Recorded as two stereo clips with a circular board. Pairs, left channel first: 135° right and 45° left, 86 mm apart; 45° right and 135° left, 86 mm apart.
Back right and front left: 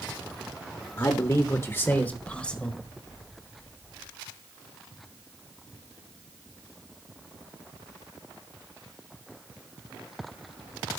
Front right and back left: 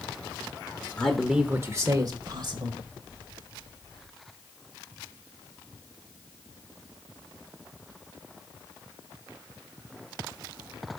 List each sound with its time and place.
1.0 s a man speaking: 115° right, 1.0 m; by 2.8 s 145° left, 1.9 m